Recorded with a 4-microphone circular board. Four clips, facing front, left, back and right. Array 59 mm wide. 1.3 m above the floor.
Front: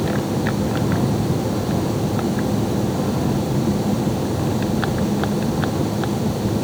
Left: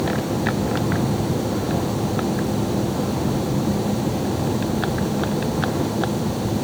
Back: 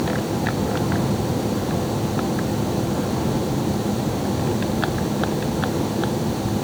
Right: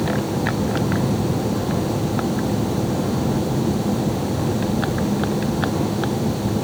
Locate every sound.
Only background noise.